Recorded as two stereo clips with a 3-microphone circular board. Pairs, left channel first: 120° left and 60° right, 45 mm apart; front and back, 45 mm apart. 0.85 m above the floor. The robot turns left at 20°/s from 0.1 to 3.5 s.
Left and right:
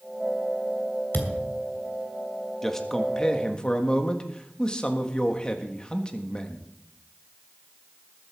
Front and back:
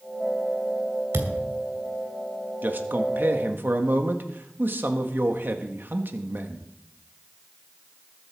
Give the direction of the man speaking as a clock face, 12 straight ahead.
5 o'clock.